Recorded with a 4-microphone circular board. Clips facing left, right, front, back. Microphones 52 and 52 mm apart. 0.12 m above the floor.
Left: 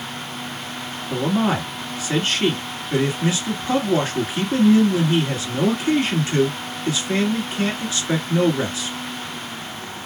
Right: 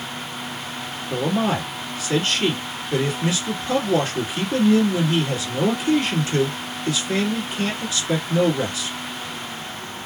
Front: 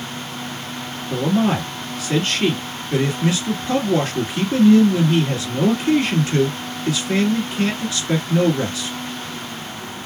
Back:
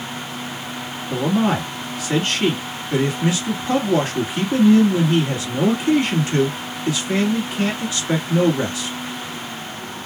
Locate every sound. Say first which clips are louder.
1.1 s a man speaking: left 1 dB, even; 130° left, 1.9 m